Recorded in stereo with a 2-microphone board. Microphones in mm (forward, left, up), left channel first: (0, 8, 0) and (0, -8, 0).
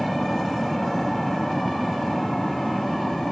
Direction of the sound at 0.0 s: 40° left (ahead or behind).